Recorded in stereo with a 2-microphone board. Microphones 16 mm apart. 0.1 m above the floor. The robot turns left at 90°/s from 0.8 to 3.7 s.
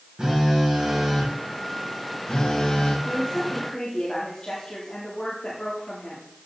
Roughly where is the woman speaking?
Behind.